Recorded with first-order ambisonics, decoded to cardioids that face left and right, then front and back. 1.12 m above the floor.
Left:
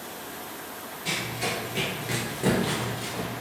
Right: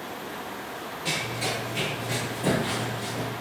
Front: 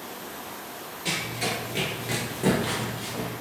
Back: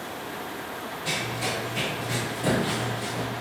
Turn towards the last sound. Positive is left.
turn(degrees=75)